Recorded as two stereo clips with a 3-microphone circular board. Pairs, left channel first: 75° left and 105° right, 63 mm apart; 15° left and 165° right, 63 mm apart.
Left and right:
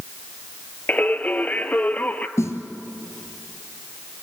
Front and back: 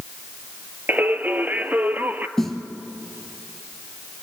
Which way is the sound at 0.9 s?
135° left.